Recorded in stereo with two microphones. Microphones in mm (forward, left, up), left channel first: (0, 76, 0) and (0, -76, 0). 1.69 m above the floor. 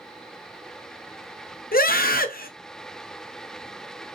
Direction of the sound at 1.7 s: 75° left (ahead or behind).